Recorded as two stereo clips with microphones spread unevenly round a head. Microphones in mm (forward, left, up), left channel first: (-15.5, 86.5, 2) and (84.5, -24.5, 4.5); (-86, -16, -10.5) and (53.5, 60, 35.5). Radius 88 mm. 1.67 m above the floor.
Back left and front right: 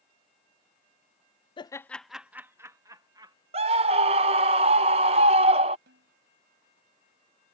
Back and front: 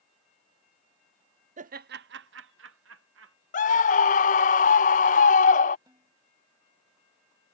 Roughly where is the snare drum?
Ahead right.